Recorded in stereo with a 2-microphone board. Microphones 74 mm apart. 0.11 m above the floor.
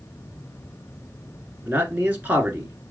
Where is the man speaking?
25° right (ahead or behind), 1.2 m.